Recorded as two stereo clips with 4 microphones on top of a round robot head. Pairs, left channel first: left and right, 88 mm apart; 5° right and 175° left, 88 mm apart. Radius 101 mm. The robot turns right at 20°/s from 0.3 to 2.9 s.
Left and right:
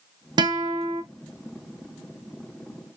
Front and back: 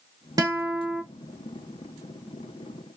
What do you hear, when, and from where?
0.4 s a guitar: 130° right, 0.6 m; by 1.0 s 115° right, 0.6 m